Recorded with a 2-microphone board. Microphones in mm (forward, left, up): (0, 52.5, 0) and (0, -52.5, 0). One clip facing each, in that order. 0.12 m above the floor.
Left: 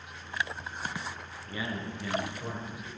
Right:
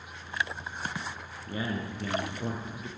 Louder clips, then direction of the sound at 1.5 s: Right 3 dB; 40° right (ahead or behind).